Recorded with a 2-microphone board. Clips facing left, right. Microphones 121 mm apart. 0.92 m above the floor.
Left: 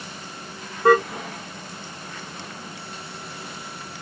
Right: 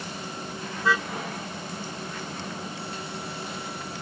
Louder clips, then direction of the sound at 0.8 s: Left 10 dB; 55° left (ahead or behind).